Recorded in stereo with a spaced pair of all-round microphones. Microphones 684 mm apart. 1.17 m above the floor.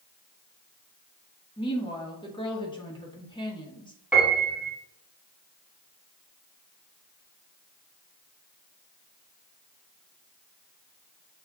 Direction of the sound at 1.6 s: 5° left (ahead or behind).